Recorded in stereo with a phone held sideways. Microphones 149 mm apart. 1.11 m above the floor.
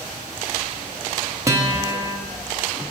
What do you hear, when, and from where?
1.5 s a guitar: 20° right (ahead or behind), 0.8 m